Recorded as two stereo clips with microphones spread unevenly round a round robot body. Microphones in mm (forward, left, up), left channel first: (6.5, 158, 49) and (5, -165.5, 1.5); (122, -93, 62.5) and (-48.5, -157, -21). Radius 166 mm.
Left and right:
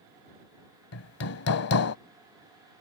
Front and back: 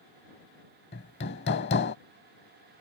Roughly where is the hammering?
Ahead left.